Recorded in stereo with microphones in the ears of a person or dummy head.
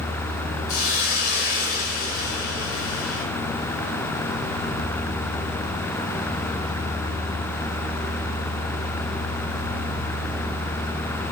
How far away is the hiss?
About 6 m.